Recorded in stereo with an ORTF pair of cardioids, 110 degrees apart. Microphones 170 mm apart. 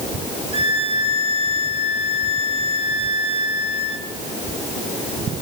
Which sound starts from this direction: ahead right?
A violin, at 0.5 s.